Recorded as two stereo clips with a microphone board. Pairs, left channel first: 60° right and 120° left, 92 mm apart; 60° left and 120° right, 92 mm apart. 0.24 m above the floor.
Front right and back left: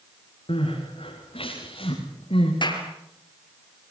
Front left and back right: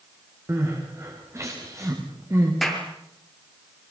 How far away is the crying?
About 7.5 m.